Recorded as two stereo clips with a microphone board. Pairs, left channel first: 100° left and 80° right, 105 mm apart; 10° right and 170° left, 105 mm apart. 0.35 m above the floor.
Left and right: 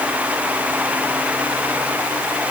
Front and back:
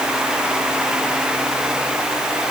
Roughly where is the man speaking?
No man speaking in this recording.